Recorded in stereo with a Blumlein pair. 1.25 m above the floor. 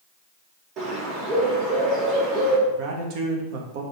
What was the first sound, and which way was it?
A bird, 35° right.